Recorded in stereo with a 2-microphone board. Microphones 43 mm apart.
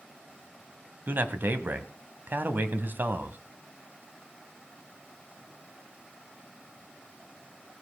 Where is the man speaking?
50° right (ahead or behind), 1.6 m.